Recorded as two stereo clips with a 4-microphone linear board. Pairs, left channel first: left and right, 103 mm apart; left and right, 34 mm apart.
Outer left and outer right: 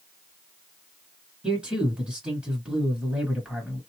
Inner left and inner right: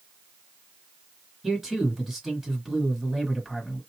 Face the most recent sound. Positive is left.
turn(degrees=-10)  # may be behind; listen again after turning